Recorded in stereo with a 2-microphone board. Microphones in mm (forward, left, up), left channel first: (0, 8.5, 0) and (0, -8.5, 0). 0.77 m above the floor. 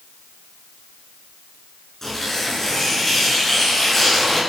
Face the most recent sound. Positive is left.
turn(degrees=20)  # may be behind; listen again after turning